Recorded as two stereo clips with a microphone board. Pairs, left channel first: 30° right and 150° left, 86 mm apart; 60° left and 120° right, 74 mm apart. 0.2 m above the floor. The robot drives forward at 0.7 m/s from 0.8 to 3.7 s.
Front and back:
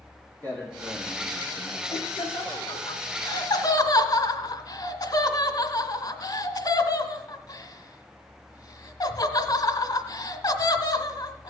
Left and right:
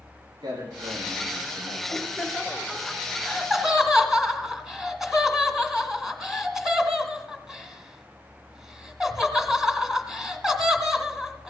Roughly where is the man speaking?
Right.